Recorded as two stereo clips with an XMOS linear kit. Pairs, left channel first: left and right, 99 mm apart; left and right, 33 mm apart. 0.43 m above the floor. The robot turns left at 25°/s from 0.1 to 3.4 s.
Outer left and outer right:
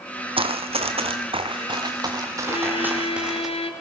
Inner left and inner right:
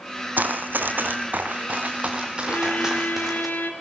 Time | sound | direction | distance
0.4 | running footsteps | 65° right (ahead or behind) | 1.4 m
2.5 | a violin | 65° left (ahead or behind) | 3.5 m